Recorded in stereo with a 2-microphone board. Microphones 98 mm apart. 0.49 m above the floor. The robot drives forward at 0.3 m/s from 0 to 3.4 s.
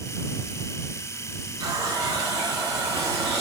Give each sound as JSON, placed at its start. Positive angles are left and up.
{"t": 1.6, "sound": "a running tap", "side_deg": -40, "distance_m": 3.0}